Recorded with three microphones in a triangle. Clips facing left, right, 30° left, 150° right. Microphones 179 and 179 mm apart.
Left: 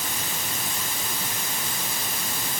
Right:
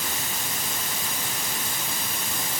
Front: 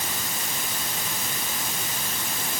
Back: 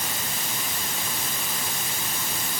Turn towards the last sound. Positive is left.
No sound to turn to.